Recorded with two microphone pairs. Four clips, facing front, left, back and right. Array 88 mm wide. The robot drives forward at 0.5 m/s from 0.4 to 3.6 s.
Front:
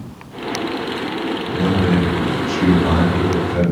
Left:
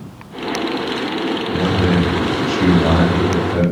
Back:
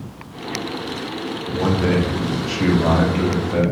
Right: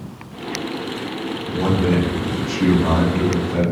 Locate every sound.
1.5 s a man speaking: 105° left, 0.9 m; by 3.6 s 160° left, 1.5 m